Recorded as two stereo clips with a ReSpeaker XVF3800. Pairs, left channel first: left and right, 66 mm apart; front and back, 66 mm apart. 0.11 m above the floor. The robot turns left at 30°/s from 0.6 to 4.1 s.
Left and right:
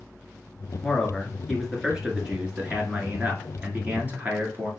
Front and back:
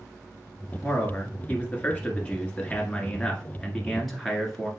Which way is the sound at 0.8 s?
10° left.